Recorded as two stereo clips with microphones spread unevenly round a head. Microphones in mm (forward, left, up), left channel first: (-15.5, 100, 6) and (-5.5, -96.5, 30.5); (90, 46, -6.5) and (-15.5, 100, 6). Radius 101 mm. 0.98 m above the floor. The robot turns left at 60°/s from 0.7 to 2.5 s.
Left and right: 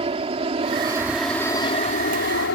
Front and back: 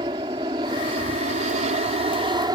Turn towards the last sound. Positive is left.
turn(degrees=105)